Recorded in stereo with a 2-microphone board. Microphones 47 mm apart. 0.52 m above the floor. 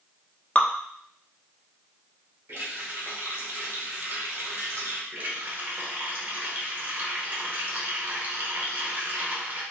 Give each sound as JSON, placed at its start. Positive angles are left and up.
{"t": 0.6, "sound": "dripping", "side_deg": 25, "distance_m": 0.5}
{"t": 2.5, "sound": "a running tap", "side_deg": -60, "distance_m": 1.1}
{"t": 5.1, "sound": "a running tap", "side_deg": -40, "distance_m": 1.0}